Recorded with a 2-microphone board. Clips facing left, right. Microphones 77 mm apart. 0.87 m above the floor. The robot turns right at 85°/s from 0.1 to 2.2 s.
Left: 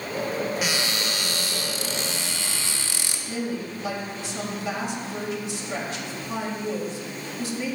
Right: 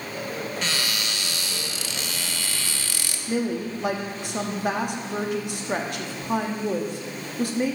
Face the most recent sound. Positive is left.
turn(degrees=-55)  # may be behind; listen again after turning